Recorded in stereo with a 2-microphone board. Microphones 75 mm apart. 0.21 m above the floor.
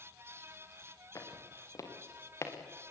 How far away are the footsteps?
About 5 m.